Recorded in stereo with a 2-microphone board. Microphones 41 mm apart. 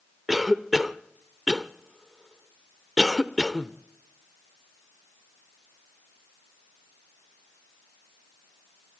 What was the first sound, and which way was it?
A cough, centre (ahead or behind).